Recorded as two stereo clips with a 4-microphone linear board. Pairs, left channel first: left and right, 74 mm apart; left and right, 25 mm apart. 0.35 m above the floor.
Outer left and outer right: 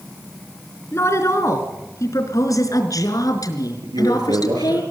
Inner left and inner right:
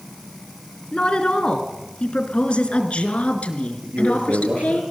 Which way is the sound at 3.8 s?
80° right.